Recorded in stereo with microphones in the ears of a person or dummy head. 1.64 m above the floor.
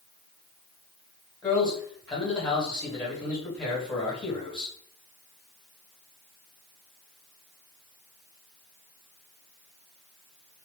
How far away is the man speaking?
About 1.6 m.